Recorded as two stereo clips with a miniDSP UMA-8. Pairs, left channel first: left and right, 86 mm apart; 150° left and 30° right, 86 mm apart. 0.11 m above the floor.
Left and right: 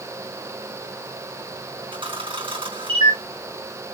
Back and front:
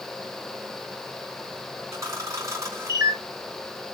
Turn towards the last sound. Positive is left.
turn(degrees=-80)